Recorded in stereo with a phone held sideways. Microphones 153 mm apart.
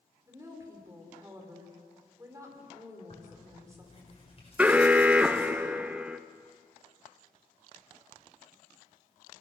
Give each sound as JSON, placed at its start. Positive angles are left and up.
{"t": 0.3, "sound": "a woman speaking", "side_deg": -20, "distance_m": 4.5}
{"t": 3.1, "sound": "tearing paper", "side_deg": 45, "distance_m": 5.5}
{"t": 4.6, "sound": "an alarm", "side_deg": -10, "distance_m": 0.7}